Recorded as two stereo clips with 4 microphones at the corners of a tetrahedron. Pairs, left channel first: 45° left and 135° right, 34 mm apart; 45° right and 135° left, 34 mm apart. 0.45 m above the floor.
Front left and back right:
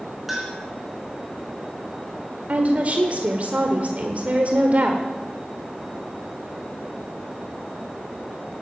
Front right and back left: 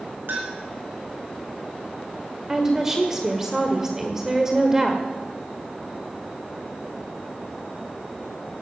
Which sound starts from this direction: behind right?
A woman speaking, at 2.5 s.